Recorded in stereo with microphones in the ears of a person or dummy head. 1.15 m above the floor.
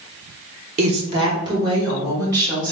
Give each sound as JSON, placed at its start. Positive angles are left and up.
{"t": 0.8, "sound": "a woman speaking", "side_deg": -40, "distance_m": 0.9}